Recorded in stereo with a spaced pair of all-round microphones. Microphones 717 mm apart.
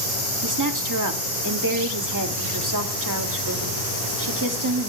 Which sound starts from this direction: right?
A woman speaking, at 0.4 s.